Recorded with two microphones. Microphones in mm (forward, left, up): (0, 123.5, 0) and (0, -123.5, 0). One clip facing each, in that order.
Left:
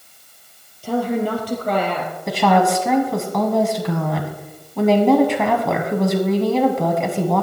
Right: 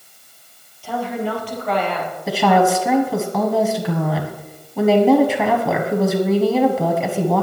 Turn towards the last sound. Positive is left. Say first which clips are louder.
# right 1 dB
turn(degrees=-5)  # may be behind; listen again after turning